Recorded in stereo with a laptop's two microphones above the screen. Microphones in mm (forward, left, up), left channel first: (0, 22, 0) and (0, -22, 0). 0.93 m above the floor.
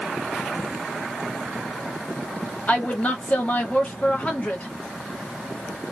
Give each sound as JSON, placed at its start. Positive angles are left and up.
{"t": 2.7, "sound": "a woman speaking", "side_deg": 30, "distance_m": 1.1}